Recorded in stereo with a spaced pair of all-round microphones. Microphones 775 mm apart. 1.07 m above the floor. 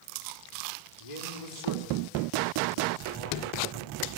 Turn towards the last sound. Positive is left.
turn(degrees=60)  # may be behind; listen again after turning